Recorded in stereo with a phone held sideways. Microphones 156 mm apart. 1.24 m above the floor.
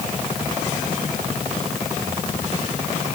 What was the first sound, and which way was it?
Only background noise.